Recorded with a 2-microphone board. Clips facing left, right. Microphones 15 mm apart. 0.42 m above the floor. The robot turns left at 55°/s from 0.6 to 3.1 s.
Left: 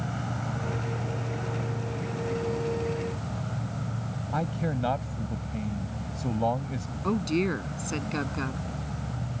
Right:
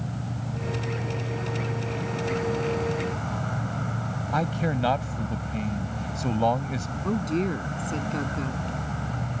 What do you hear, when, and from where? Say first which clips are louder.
0.0 s an insect: left 1 dB; 55° left; by 9.4 s 85° right
4.3 s a man speaking: right 4 dB; 35° right (ahead or behind)
7.0 s a woman speaking: even; 25° left (ahead or behind)